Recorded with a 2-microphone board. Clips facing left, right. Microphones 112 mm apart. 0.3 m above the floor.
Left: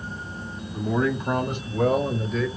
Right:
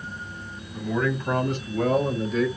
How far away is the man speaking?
About 1.9 m.